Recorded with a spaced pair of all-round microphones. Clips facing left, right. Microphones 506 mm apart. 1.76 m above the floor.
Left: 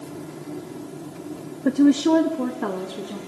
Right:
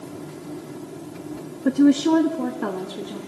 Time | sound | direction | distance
1.6 | a woman speaking | centre (ahead or behind) | 0.7 m